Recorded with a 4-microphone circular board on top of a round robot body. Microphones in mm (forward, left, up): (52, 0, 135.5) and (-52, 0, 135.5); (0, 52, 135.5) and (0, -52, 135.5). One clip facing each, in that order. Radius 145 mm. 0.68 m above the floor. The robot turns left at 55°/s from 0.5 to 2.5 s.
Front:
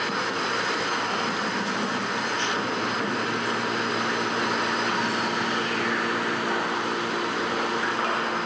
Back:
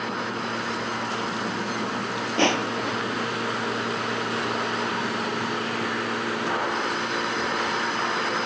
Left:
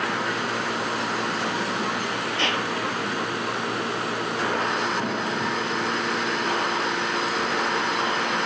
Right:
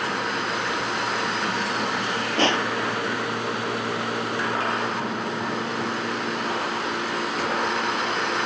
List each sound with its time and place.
2.4 s crushing: 145° right; by 3.2 s 150° right